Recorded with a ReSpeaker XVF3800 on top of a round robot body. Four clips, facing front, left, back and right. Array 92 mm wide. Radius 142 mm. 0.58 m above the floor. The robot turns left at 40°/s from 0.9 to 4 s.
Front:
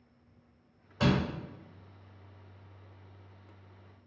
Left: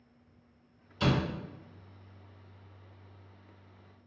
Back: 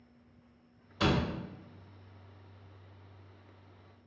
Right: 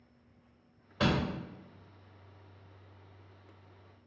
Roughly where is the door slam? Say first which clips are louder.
Even, front 1 dB; ahead right.